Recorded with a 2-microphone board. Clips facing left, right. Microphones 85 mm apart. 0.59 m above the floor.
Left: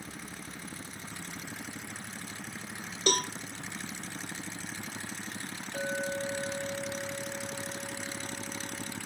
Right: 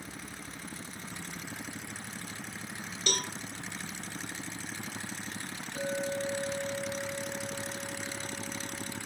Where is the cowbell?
50° left (ahead or behind), 0.7 m.